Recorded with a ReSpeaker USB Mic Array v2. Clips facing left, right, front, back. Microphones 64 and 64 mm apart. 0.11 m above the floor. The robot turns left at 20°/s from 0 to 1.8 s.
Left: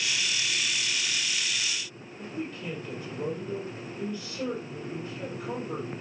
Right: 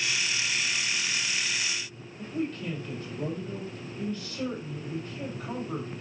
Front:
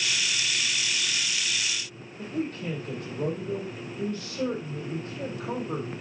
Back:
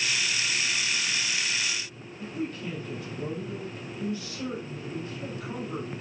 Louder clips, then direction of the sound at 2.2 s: Right 4 dB, front 2 dB; 10° left.